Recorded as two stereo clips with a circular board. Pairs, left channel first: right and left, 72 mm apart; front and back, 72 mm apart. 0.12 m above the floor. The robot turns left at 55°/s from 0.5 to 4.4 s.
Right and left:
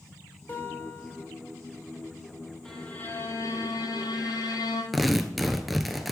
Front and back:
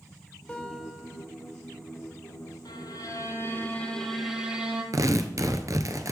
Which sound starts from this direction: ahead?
A violin, at 2.6 s.